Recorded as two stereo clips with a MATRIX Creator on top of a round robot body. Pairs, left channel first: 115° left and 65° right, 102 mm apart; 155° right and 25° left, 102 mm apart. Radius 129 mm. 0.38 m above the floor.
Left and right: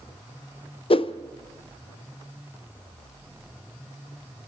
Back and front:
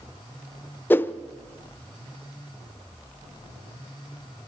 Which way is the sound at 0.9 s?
130° left.